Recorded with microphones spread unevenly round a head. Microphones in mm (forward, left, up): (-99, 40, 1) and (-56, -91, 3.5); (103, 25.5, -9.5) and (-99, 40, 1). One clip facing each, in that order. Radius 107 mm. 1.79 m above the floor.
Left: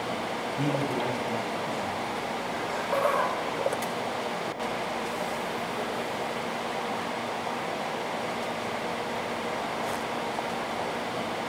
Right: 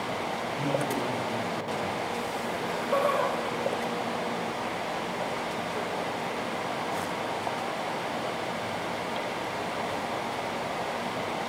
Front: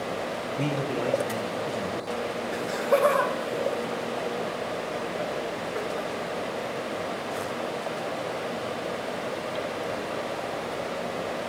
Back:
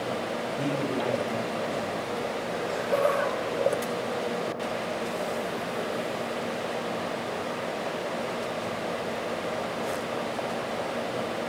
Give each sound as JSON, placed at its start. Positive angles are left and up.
{"t": 0.6, "sound": "a man speaking", "azimuth_deg": 60, "distance_m": 1.1}
{"t": 2.5, "sound": "laughter", "azimuth_deg": -5, "distance_m": 1.0}